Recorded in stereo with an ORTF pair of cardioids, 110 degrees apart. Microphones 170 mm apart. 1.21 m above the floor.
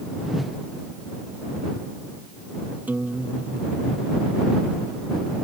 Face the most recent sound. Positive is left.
turn(degrees=-10)